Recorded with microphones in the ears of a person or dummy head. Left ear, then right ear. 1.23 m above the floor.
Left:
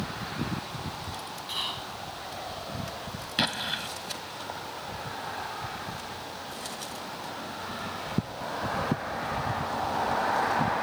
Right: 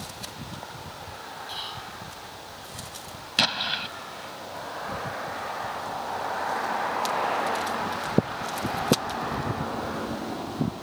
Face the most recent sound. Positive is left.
turn(degrees=-25)  # may be behind; listen again after turning